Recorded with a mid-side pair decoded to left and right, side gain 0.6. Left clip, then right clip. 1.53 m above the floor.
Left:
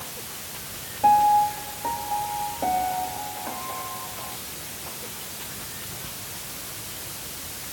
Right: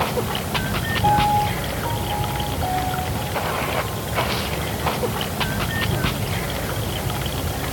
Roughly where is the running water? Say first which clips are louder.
Right 15 dB; right.